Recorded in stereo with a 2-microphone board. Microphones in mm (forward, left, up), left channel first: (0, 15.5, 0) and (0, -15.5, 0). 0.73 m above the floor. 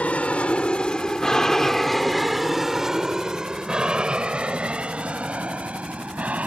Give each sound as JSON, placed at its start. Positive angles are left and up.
{"t": 0.0, "sound": "an aircraft", "side_deg": 50}